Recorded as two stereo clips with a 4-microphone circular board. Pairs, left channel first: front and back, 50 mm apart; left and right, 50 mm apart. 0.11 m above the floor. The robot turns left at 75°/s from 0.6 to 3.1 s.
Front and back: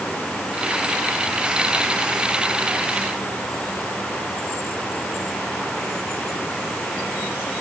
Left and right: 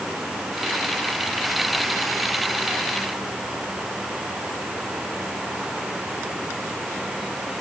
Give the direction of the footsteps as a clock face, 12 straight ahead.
No footsteps in this recording.